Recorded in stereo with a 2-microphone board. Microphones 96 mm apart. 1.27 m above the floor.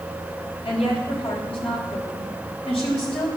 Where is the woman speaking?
85° left, 6 m.